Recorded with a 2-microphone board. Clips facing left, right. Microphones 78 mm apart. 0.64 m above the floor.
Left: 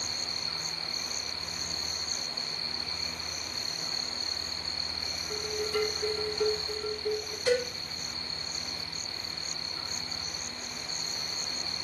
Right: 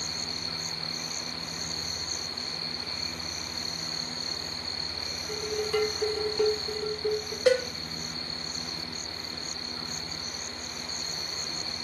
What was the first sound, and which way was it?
Dishes clattering, 75° right (ahead or behind).